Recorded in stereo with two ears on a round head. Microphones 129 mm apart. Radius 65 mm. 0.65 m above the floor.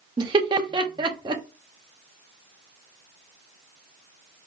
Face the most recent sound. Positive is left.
turn(degrees=-30)  # may be behind; listen again after turning